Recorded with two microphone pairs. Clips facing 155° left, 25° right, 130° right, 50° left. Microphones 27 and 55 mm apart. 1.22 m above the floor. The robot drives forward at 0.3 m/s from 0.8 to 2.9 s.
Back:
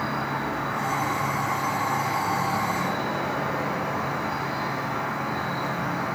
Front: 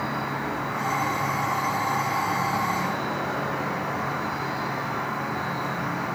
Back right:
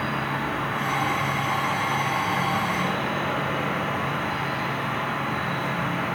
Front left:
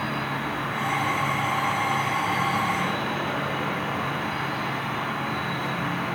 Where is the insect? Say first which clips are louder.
Back 1 dB, back right 1 dB; 170° right, 2 m; by 6.2 s 175° right, 2.5 m.